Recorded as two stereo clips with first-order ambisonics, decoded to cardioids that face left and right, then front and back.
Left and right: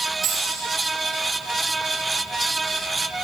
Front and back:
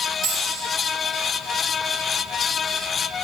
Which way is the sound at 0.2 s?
150° right.